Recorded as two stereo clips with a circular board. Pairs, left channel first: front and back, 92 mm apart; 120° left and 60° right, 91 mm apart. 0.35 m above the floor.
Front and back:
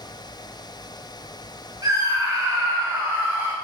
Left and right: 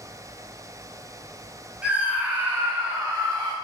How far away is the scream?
About 2.5 m.